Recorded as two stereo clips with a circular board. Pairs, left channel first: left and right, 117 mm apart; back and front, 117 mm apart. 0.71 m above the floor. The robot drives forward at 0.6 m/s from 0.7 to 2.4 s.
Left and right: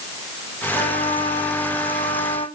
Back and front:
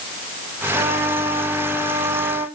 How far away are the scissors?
No scissors in this recording.